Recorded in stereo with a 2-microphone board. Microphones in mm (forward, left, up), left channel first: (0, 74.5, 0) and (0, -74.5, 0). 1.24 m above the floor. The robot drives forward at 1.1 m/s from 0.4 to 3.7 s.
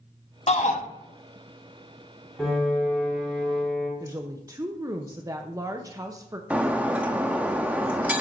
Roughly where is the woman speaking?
Right.